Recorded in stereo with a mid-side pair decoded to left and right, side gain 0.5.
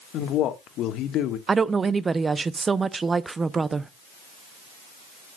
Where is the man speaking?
70° left, 1.3 m.